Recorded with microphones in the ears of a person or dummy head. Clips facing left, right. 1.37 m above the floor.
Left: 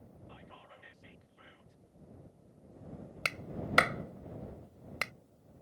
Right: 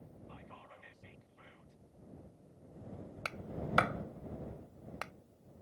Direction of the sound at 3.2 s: 30° left (ahead or behind).